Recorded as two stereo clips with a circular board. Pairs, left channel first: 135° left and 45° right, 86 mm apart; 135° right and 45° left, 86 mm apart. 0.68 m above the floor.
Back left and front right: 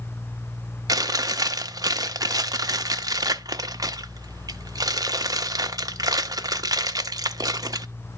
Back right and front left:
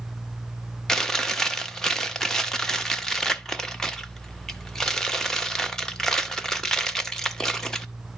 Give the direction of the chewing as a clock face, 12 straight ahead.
2 o'clock.